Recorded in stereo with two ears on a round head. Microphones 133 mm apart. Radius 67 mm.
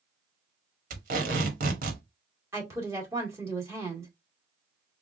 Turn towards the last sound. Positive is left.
turn(degrees=-20)  # may be behind; listen again after turning